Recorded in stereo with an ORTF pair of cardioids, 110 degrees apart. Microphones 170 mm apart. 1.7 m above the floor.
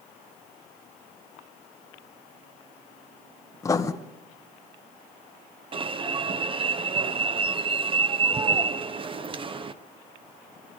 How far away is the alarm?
About 1.2 m.